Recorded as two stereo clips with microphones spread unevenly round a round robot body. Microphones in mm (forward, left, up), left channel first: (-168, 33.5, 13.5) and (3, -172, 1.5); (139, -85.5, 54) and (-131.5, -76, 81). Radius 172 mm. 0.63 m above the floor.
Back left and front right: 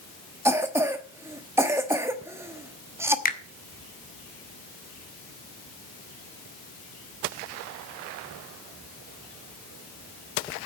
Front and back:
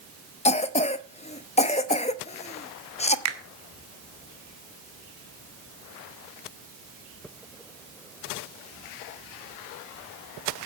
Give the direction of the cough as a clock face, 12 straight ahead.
11 o'clock.